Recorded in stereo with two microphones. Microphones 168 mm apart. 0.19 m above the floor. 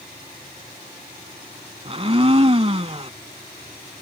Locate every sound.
1.9 s a blender: 35° right (ahead or behind)